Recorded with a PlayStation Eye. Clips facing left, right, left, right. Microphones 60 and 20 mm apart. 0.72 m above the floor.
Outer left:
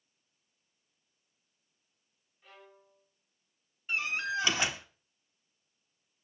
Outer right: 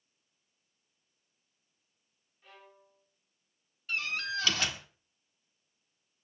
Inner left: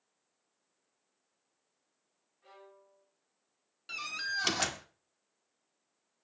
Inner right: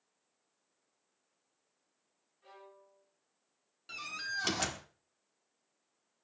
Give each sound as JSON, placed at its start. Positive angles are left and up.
{"t": 2.4, "sound": "a violin", "side_deg": 10, "distance_m": 4.0}
{"t": 3.9, "sound": "a door slam", "side_deg": 20, "distance_m": 1.1}